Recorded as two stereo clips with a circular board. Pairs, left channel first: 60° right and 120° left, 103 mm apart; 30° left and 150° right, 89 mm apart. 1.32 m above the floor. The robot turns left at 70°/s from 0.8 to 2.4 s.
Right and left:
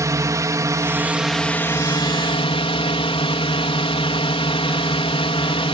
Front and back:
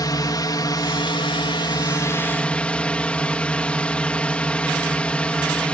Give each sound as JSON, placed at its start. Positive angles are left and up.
{"t": 0.0, "sound": "a drone", "azimuth_deg": 65}